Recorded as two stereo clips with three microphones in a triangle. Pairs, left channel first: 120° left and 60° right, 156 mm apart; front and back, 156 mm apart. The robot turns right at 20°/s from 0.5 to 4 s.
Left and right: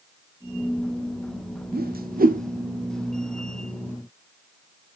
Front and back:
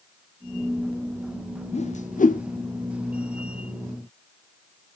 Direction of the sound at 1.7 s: 45° right.